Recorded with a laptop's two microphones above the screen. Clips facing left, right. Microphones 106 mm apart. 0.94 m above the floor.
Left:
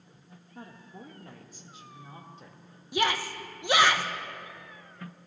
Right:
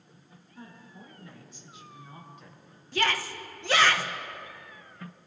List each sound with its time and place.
0.6 s a woman speaking: 65° left (ahead or behind), 1.8 m; by 2.6 s 30° left (ahead or behind), 2.5 m
2.9 s a shout: 15° left (ahead or behind), 0.6 m